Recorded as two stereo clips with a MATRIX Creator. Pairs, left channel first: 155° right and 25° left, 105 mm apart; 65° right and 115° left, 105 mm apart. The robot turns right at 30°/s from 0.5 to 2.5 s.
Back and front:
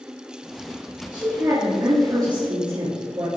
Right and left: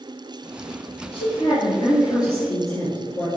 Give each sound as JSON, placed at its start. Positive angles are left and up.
{"t": 1.1, "sound": "a woman speaking", "azimuth_deg": -55, "distance_m": 3.0}